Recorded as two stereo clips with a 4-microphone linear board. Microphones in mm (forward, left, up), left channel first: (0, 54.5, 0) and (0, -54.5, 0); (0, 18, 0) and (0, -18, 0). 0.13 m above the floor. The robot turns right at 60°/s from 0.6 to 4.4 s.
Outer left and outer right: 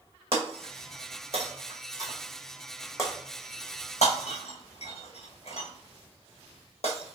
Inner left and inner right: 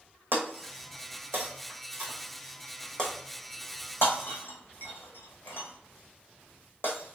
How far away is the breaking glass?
About 1.3 m.